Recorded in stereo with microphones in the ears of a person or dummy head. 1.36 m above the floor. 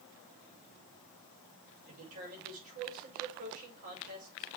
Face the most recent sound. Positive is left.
turn(degrees=-45)  # may be behind; listen again after turning